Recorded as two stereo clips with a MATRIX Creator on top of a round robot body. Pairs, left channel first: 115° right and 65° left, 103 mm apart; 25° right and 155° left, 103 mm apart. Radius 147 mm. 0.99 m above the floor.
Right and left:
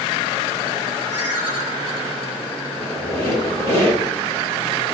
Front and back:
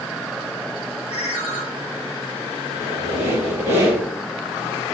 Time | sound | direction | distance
1.1 | a ringtone | straight ahead | 2 m
2.7 | a squeak | 135° right | 2.5 m